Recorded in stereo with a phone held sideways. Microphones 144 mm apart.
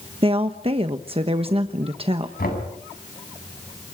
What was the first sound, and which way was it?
A woman speaking, 40° right (ahead or behind).